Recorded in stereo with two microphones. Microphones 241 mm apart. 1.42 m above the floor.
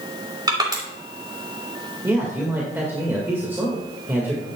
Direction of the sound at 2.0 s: 10° right (ahead or behind).